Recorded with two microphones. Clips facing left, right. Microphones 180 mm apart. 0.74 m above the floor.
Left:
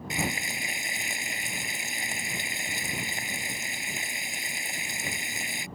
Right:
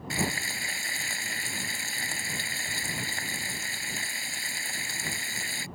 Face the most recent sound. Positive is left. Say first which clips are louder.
# right 1 dB
turn(degrees=20)  # may be behind; listen again after turning